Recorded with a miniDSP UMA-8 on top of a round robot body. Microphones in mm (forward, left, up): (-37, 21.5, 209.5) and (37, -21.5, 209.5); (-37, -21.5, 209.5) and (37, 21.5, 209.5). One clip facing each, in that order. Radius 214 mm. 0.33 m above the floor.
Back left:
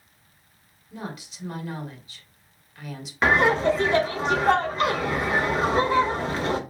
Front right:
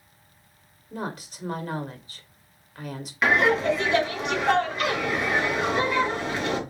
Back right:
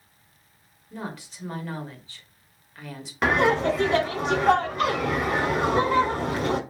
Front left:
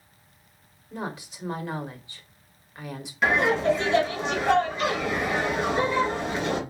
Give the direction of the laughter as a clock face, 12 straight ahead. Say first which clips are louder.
Back left 1 dB, back right 1 dB; 5 o'clock.